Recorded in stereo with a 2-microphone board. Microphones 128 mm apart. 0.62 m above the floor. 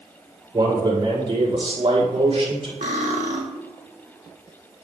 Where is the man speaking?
35° right (ahead or behind), 2.5 m; by 2.7 s 50° right (ahead or behind), 3.5 m.